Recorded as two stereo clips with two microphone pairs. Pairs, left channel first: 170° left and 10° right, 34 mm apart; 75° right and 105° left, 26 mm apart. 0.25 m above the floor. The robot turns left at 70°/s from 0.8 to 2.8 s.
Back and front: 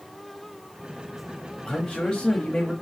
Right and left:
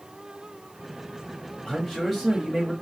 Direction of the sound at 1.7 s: 120° right.